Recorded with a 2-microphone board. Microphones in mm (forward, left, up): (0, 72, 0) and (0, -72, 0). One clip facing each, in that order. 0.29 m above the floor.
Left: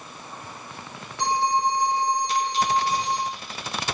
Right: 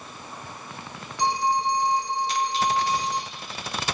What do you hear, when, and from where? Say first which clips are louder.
1.2 s a phone ringing: left 1 dB; 55° left (ahead or behind), 8 m